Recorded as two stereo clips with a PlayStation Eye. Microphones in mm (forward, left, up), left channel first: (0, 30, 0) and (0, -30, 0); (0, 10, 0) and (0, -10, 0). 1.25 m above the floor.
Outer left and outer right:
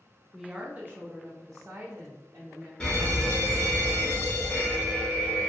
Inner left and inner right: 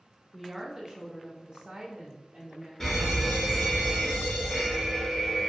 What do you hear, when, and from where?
0.3 s a woman speaking: 5° right (ahead or behind), 0.6 m; by 2.7 s 70° right (ahead or behind), 1.3 m
2.8 s a fire alarm: 15° left (ahead or behind), 1.0 m